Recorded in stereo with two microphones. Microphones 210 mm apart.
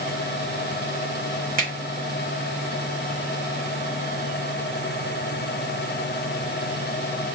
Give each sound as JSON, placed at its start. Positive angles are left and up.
{"t": 1.6, "sound": "a finger snap", "side_deg": -40, "distance_m": 1.3}